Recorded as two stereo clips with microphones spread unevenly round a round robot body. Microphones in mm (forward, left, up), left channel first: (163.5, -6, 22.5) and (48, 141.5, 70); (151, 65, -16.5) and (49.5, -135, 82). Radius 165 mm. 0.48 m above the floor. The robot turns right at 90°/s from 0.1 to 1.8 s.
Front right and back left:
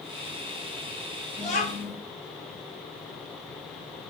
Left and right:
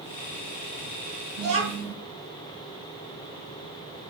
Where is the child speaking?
120° right, 1.6 m; by 1.9 s 80° right, 1.6 m.